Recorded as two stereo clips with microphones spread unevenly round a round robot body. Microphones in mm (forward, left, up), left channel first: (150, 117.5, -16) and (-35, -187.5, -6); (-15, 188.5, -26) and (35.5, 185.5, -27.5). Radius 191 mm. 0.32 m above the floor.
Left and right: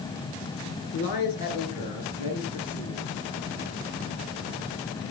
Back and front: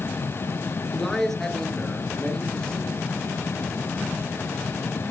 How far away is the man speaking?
About 4.5 m.